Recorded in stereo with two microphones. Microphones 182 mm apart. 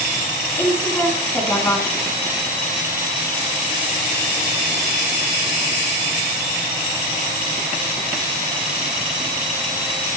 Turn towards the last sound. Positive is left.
turn(degrees=10)  # may be behind; listen again after turning